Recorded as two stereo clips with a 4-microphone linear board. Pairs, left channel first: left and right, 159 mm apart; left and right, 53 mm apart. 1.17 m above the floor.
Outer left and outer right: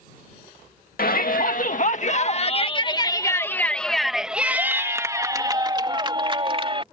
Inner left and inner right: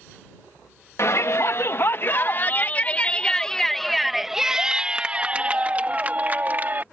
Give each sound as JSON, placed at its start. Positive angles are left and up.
{"t": 1.0, "sound": "a shout", "side_deg": 65}